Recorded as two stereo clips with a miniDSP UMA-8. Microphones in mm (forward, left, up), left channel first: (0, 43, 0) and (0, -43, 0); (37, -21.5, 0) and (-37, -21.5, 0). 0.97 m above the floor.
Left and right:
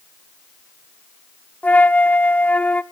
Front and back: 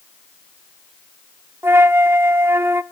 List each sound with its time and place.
1.6 s a flute: 150° left, 0.6 m